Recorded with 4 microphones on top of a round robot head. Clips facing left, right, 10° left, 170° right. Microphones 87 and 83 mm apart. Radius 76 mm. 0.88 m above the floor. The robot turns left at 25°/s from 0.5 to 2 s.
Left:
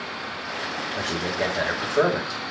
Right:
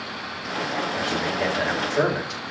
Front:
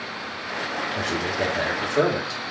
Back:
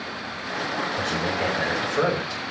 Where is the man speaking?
30° left, 4.5 m; by 2.4 s 5° left, 4.5 m.